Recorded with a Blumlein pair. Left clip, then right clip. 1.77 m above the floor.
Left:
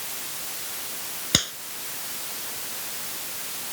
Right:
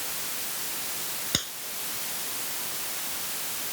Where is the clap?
70° left.